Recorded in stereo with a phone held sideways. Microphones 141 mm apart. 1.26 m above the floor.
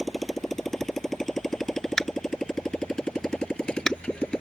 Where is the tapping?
5° left (ahead or behind).